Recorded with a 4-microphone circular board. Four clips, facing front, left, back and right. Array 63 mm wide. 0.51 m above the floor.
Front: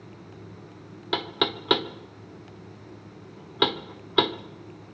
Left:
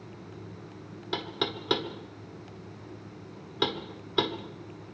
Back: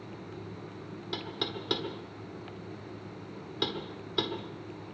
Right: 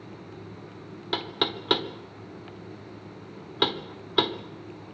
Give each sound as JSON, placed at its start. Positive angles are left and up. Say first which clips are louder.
{"t": 1.1, "sound": "knocking", "louder": "right 3 dB, front 10 dB", "azimuth_deg": -15, "distance_m": 1.1}